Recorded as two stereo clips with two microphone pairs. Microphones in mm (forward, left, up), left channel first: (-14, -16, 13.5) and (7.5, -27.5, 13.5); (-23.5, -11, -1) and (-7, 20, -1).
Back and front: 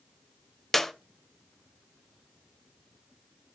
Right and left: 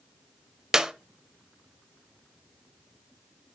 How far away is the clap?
About 0.7 m.